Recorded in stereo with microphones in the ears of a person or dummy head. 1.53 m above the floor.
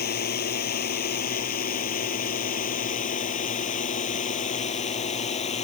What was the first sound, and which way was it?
A drone, 55° left (ahead or behind).